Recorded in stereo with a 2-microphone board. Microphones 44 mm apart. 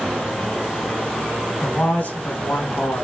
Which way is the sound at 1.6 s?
35° left (ahead or behind).